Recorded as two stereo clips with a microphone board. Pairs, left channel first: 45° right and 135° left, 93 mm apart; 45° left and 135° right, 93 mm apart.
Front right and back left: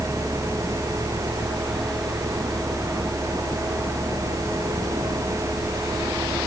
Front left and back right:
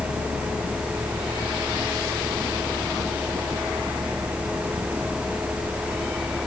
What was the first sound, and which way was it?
Only background noise.